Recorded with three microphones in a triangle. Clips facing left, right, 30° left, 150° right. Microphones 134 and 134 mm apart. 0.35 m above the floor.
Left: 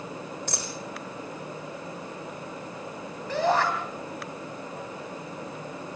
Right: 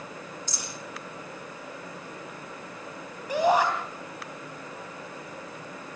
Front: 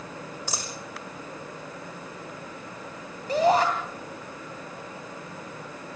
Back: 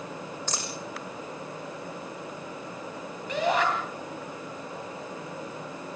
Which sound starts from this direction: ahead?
A shout, at 3.3 s.